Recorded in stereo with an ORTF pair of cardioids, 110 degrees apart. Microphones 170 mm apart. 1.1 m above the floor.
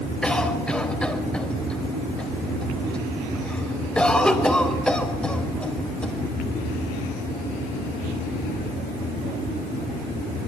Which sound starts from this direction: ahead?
A cough, at 0.2 s.